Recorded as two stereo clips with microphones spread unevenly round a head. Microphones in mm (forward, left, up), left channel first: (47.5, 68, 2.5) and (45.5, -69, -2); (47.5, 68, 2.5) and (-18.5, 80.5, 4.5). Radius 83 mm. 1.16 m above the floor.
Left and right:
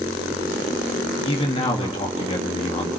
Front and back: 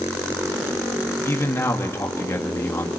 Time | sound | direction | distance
1.2 | a man speaking | 40° left | 1.9 m